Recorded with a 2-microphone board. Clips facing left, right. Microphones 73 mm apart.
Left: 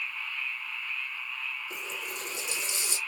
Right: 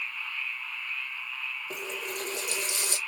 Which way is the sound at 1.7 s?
65° right (ahead or behind).